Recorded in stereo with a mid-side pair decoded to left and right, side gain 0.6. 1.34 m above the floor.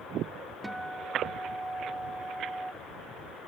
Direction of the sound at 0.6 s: 15° right.